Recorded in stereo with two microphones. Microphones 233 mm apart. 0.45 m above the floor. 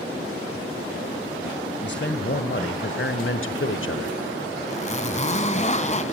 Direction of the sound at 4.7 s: 30° left (ahead or behind).